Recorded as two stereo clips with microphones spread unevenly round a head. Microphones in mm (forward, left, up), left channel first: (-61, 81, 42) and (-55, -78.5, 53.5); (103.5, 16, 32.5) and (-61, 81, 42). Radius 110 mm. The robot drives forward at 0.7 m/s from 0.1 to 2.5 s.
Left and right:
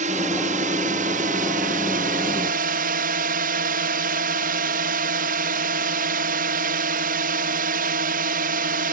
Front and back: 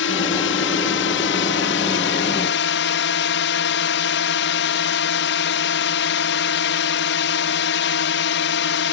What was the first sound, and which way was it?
A drone, 35° right.